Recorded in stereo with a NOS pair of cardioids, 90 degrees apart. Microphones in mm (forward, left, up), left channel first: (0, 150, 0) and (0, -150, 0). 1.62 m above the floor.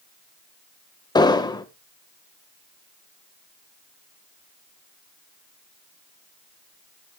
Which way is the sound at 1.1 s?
15° left.